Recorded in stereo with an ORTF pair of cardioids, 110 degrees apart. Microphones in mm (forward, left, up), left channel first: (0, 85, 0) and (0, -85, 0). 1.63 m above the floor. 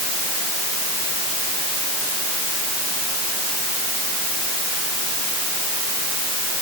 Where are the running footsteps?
I don't hear running footsteps.